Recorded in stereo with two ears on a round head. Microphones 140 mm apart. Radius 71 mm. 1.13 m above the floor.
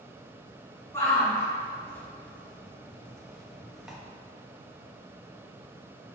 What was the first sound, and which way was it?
A shout, 15° left (ahead or behind).